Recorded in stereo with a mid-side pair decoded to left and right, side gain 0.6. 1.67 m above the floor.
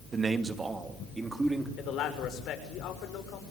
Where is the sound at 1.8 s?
60° left, 6.5 m.